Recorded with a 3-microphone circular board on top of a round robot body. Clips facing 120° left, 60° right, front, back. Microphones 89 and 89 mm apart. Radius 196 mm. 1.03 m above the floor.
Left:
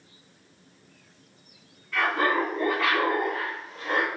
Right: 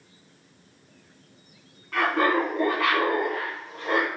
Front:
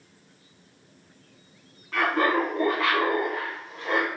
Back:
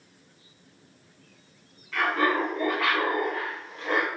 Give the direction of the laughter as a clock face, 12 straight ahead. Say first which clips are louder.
Right 2 dB, front 2 dB; 1 o'clock.